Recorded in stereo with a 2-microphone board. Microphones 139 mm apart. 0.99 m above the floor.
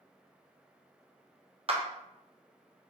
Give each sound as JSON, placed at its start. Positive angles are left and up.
{"t": 1.7, "sound": "a clap", "side_deg": -45, "distance_m": 0.7}